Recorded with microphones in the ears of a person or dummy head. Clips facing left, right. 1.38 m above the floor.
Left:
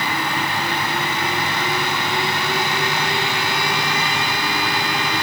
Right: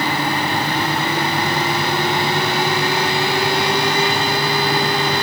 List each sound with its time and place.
Only background noise.